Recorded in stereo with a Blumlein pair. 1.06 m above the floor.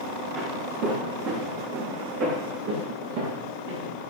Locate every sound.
0.3 s footsteps: 30° right, 4 m; by 3.9 s 60° right, 6.5 m